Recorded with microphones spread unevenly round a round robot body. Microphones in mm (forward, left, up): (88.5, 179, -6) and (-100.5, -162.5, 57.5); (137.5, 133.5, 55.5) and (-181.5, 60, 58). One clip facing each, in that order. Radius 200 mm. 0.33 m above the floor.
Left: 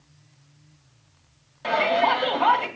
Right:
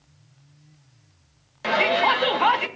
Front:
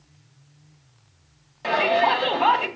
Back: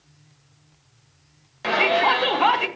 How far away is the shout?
About 1.7 m.